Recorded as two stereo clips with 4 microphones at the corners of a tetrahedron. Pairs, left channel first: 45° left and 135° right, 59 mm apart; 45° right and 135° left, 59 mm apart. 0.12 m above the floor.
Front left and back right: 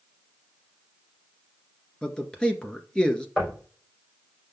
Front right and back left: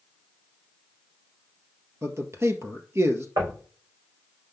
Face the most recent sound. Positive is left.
turn(degrees=130)